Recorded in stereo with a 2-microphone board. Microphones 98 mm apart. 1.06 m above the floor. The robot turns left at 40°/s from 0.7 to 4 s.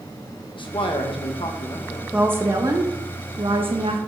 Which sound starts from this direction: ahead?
A woman speaking, at 2.1 s.